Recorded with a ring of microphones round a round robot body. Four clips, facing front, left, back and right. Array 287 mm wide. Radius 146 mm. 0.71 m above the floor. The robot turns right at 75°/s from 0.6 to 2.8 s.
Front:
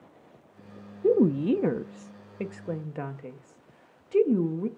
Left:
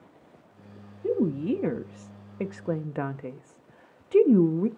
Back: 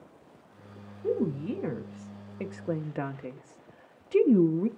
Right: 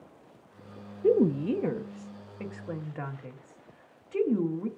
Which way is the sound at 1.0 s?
30° right.